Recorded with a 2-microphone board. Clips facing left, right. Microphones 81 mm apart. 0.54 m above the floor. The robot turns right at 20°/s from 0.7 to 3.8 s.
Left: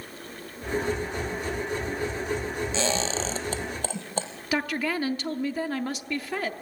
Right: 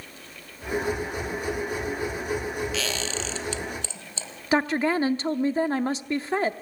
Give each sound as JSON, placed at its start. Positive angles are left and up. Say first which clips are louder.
{"t": 2.7, "sound": "a squeak", "louder": "left 3 dB", "side_deg": 30, "distance_m": 1.8}
{"t": 4.5, "sound": "a woman speaking", "louder": "right 5 dB", "side_deg": -30, "distance_m": 0.7}